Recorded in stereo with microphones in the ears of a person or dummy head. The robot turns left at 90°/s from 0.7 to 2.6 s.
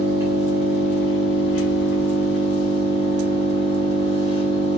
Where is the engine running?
170° right, 1.8 m; by 4.8 s 20° left, 1.8 m.